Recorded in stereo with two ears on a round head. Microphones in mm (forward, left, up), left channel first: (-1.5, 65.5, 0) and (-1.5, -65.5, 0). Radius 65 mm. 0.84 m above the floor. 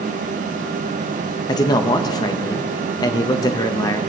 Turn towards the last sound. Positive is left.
turn(degrees=25)  # may be behind; listen again after turning